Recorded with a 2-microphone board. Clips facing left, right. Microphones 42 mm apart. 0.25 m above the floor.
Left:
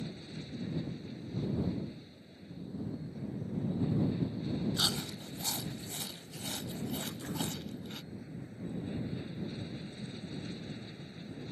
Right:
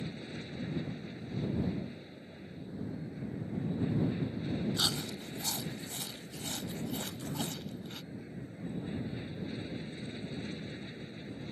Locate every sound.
0.0 s an aircraft: 25° right (ahead or behind)
4.8 s chewing: 5° left (ahead or behind)
7.0 s throat clearing: 30° left (ahead or behind)